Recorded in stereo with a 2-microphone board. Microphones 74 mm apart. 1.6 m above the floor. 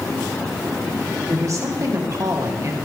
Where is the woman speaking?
45° right (ahead or behind), 1.7 m.